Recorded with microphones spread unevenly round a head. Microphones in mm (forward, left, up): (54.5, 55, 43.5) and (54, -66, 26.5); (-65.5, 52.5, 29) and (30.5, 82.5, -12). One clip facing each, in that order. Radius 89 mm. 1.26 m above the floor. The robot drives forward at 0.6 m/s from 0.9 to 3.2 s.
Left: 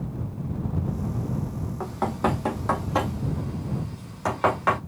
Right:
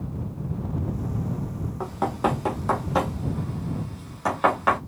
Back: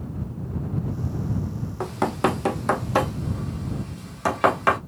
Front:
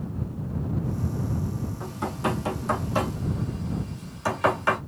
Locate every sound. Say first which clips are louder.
1.8 s knocking: right 1 dB, back 7 dB; 175° right, 0.6 m; by 4.8 s straight behind, 1.5 m